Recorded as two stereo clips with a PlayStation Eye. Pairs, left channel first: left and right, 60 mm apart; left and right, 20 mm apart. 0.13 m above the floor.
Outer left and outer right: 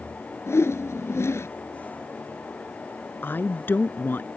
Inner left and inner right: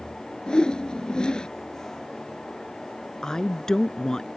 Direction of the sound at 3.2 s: 35° left (ahead or behind).